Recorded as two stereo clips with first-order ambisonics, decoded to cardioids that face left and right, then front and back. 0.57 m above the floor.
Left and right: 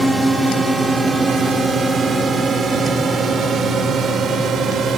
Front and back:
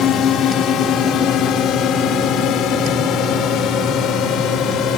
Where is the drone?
10° right; by 5.0 s 35° right.